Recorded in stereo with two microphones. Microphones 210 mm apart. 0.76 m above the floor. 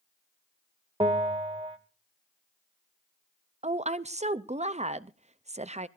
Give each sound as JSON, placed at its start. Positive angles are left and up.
{"t": 1.0, "sound": "a bell", "side_deg": -25, "distance_m": 1.5}
{"t": 3.6, "sound": "a woman speaking", "side_deg": -30, "distance_m": 0.5}